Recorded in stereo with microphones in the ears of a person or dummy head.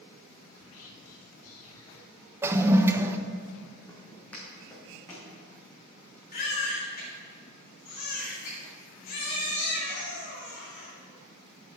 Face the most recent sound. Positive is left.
turn(degrees=50)  # may be behind; listen again after turning